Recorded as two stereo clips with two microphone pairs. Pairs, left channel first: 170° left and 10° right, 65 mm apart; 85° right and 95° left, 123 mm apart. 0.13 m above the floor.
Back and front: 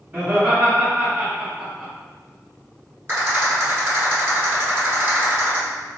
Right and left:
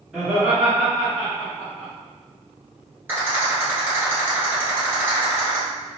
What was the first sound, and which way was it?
Laughter, 20° left.